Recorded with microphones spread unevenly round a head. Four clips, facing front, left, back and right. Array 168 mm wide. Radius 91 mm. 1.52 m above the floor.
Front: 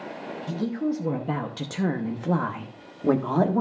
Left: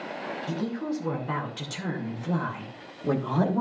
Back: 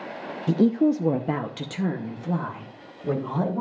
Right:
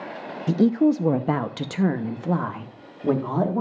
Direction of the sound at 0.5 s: 130° right.